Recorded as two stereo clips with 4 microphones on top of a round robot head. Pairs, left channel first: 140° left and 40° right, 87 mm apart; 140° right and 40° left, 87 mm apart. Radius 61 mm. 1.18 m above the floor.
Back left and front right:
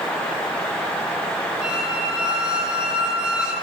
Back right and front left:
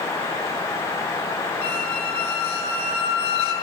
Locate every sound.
1.6 s a squeak: 120° right, 7 m